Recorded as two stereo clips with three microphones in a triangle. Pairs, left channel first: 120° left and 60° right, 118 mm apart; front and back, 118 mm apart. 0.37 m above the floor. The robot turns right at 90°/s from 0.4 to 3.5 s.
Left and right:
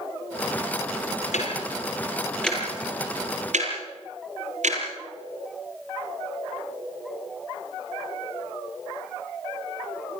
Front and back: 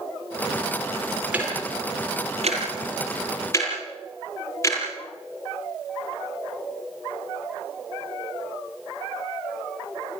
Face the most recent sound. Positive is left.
turn(degrees=-65)